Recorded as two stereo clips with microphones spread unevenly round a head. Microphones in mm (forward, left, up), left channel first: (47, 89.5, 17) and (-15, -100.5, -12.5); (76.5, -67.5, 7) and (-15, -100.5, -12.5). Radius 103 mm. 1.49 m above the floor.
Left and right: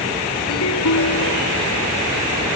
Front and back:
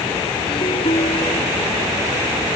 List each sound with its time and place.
0.5 s a ringtone: 75° left